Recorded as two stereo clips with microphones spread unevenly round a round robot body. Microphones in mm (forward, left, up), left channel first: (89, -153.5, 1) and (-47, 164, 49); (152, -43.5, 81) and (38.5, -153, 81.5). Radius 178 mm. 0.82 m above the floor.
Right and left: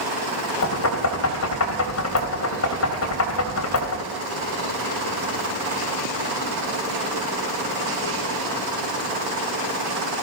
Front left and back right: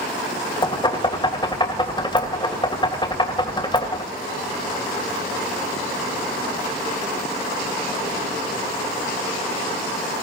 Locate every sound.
0.6 s knocking: 15° right, 3 m